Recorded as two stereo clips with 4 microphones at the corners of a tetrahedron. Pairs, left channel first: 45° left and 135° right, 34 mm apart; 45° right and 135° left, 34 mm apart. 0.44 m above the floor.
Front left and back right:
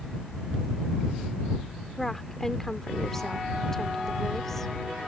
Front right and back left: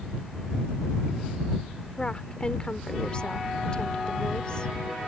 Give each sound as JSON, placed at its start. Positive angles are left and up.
{"t": 2.0, "sound": "a woman speaking", "azimuth_deg": -20}